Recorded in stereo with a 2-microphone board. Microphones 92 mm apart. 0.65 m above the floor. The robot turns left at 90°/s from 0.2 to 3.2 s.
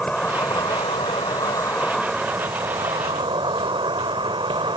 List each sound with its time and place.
0.0 s an insect: 170° left; by 4.8 s 100° right